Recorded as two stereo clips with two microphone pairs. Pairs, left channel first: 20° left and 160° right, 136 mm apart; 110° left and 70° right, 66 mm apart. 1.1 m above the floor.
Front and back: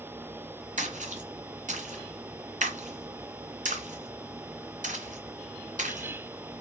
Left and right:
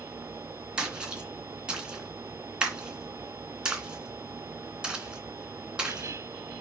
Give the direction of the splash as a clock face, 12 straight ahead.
5 o'clock.